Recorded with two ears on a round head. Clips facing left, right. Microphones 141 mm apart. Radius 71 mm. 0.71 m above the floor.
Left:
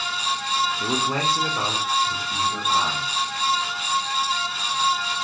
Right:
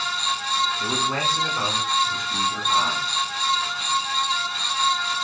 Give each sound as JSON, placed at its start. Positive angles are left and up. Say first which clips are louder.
{"t": 0.8, "sound": "a man speaking", "louder": "left 1 dB", "side_deg": 15, "distance_m": 1.4}